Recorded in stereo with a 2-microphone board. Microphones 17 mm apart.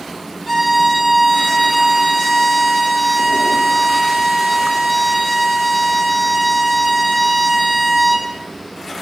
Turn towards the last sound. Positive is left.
turn(degrees=0)  # may be behind; listen again after turning